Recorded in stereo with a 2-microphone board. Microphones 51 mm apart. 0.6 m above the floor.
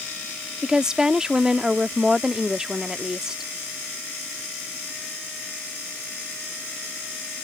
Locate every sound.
0.6 s a woman speaking: 15° right (ahead or behind)